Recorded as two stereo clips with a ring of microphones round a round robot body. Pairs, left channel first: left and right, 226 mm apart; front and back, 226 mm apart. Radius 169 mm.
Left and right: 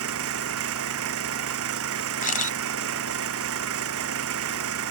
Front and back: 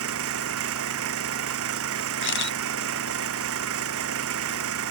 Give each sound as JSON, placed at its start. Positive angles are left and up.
{"t": 0.0, "sound": "an engine running", "azimuth_deg": -135}
{"t": 2.2, "sound": "a camera shutter", "azimuth_deg": 35}